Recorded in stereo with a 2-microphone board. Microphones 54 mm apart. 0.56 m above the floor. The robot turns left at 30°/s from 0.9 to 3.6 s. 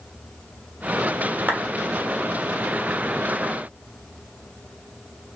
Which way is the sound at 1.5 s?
35° right (ahead or behind).